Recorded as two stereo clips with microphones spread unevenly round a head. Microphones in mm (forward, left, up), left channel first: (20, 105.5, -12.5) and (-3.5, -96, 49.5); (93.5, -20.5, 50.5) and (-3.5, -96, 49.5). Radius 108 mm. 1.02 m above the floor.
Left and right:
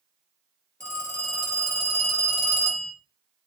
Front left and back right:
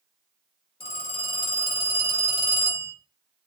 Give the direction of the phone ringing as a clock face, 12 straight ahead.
12 o'clock.